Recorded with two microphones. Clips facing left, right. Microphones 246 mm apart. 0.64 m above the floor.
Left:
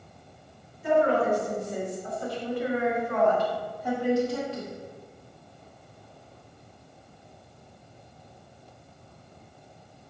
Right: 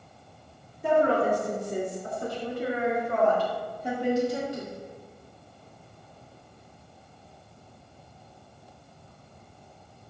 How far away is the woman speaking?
About 2.5 m.